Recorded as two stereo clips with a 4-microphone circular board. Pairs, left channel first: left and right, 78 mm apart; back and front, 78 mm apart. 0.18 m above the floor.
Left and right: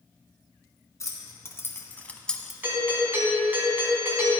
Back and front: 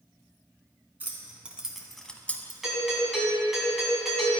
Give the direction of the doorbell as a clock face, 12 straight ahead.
3 o'clock.